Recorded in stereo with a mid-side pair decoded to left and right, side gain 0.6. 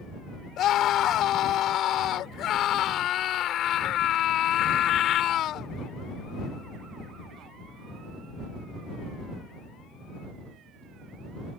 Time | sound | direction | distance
0.6 | a scream | 55° left | ?